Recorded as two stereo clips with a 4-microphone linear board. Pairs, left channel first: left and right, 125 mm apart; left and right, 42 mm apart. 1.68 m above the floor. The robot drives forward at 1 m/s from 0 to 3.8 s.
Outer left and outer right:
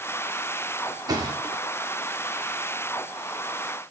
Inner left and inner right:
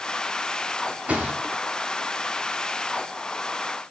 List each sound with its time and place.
1.1 s a thud: 30° right (ahead or behind), 2 m; by 1.6 s 40° right (ahead or behind), 1.8 m